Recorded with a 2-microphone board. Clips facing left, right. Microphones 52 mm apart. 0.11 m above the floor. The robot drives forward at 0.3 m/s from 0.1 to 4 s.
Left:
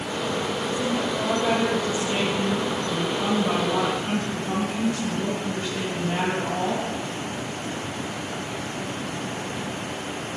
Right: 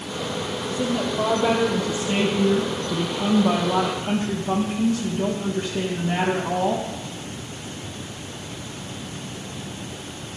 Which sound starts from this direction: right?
A woman speaking, at 0.7 s.